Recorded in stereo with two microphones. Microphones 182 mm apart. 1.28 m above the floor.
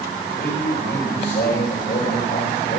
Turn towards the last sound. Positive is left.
turn(degrees=75)  # may be behind; listen again after turning